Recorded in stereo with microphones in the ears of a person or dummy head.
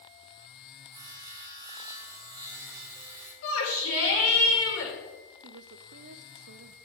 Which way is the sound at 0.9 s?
20° right (ahead or behind).